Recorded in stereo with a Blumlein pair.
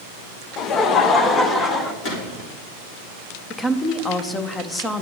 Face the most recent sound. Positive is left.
turn(degrees=15)